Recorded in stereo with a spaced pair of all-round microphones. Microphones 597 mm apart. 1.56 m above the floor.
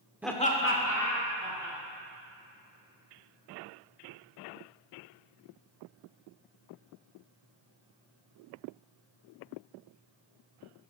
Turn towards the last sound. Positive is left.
turn(degrees=35)  # may be behind; listen again after turning